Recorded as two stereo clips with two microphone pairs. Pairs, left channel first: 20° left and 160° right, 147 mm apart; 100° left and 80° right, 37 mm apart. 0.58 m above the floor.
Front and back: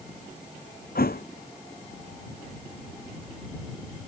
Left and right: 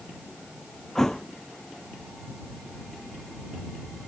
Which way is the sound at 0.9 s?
20° left.